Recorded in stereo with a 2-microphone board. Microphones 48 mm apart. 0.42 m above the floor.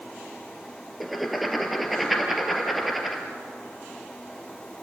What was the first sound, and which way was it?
Writing, centre (ahead or behind).